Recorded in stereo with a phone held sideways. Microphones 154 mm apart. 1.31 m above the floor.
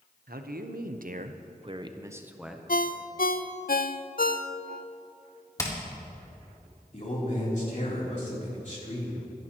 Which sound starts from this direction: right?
A man speaking, at 0.3 s.